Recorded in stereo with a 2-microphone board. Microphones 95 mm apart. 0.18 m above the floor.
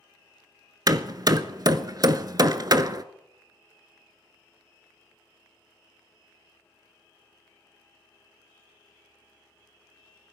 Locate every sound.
0.9 s hammering: 45° right (ahead or behind), 0.6 m